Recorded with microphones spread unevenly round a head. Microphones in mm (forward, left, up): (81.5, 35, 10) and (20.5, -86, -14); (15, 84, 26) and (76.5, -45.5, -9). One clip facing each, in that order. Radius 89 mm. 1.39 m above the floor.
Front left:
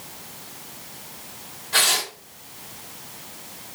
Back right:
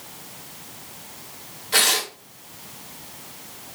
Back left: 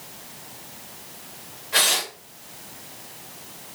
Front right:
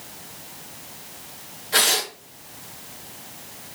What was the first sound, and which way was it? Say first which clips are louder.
Tearing paper: back right 1 dB, front right 2 dB; 130° right.